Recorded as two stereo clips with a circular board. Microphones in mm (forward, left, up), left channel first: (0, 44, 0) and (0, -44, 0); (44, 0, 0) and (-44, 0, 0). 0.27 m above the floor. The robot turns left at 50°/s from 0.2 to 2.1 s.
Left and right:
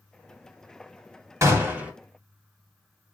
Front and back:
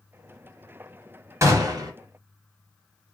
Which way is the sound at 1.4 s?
135° right.